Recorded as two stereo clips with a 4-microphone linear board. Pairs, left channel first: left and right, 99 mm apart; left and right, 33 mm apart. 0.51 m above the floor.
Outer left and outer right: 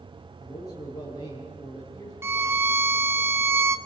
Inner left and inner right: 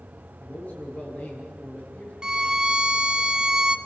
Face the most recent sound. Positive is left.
turn(degrees=-25)  # may be behind; listen again after turning